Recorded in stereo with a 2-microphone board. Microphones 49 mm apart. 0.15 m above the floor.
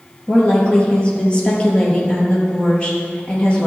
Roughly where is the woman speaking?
Left.